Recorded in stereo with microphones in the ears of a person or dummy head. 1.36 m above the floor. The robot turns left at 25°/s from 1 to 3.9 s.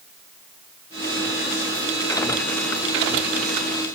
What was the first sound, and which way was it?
Only background noise.